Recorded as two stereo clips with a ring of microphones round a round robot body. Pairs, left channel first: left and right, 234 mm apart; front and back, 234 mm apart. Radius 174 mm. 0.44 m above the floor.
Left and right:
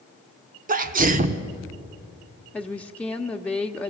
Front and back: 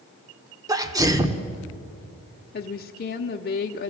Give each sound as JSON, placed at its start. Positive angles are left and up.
{"t": 0.7, "sound": "a sneeze", "azimuth_deg": -115, "distance_m": 0.9}
{"t": 2.5, "sound": "a woman speaking", "azimuth_deg": 10, "distance_m": 0.9}